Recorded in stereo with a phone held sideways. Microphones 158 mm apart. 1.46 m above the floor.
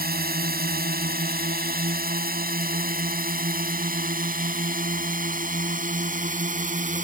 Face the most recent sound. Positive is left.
turn(degrees=-60)  # may be behind; listen again after turning